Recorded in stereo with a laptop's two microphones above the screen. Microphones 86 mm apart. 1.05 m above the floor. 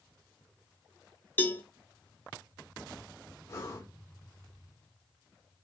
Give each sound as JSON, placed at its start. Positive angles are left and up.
{"t": 1.4, "sound": "a cowbell", "side_deg": 25, "distance_m": 0.7}
{"t": 3.5, "sound": "breathing", "side_deg": 30, "distance_m": 0.9}